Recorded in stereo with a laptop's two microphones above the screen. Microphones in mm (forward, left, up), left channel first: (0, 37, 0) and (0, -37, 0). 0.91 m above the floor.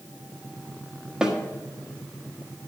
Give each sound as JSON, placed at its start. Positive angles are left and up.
{"t": 1.2, "sound": "a snare drum", "side_deg": -10, "distance_m": 1.4}